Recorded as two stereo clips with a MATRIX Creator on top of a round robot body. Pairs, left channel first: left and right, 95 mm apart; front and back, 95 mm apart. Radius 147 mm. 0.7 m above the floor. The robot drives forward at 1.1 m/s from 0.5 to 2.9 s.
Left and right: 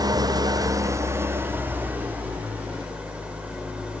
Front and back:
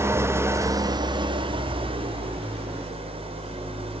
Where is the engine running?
125° right, 1.1 m; by 4.0 s 165° right, 3.5 m.